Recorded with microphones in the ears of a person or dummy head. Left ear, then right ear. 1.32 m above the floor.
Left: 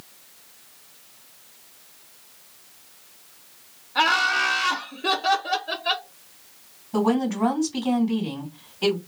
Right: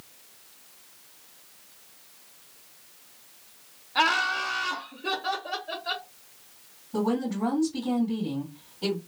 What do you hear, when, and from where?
4.0 s laughter: 10° right (ahead or behind), 0.5 m; by 6.1 s 75° left (ahead or behind), 1.7 m
6.9 s a woman speaking: 55° left (ahead or behind), 2 m